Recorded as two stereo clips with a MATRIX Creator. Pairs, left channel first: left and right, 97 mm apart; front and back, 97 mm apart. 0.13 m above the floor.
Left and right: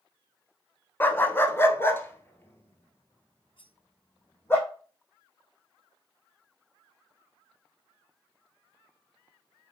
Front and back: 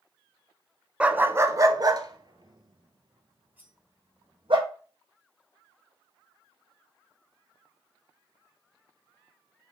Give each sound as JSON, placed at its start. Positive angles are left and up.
{"t": 1.0, "sound": "a dog barking", "azimuth_deg": 120, "distance_m": 0.5}
{"t": 3.6, "sound": "cutlery clinking", "azimuth_deg": 110, "distance_m": 1.7}